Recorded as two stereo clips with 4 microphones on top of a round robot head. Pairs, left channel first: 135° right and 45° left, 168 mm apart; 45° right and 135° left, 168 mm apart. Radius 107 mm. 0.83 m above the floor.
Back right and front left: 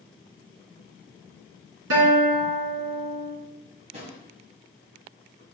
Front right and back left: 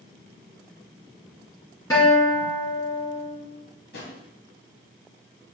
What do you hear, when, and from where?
1.9 s a guitar: 30° left, 2.5 m
3.9 s a drawer: 10° right, 1.8 m